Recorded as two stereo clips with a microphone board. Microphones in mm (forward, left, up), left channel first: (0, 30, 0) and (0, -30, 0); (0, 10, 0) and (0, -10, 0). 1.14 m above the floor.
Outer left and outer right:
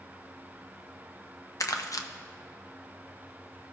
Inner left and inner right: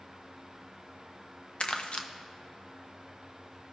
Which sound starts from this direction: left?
Crumpling, at 1.6 s.